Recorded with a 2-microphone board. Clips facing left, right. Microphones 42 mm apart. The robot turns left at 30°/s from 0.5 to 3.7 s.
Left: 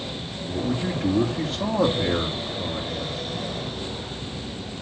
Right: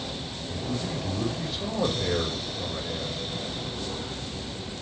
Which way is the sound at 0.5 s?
85° left.